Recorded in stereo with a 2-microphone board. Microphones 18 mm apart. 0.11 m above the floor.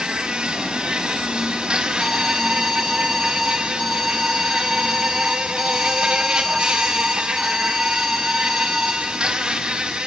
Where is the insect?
75° right (ahead or behind), 2.5 m.